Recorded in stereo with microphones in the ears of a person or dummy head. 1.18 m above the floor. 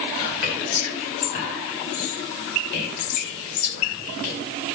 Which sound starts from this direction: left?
Whispering, at 0.2 s.